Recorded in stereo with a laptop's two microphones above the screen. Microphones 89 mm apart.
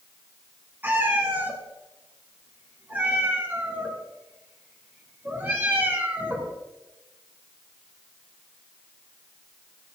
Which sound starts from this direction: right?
A cat meowing, at 0.8 s.